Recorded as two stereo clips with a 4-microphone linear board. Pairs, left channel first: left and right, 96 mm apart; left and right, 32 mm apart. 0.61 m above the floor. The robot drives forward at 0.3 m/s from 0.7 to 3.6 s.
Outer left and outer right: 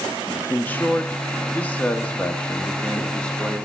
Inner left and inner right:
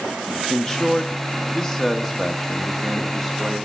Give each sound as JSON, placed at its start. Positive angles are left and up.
{"t": 0.5, "sound": "a man speaking", "side_deg": 20, "distance_m": 0.6}